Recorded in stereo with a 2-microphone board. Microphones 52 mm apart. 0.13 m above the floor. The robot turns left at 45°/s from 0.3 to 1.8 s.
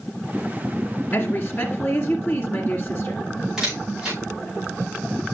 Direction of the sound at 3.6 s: 10° right (ahead or behind).